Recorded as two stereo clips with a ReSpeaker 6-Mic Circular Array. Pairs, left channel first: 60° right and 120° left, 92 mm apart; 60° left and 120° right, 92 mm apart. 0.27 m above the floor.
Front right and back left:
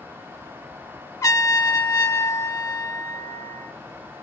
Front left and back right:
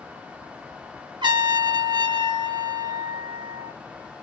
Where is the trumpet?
105° right, 1.0 m.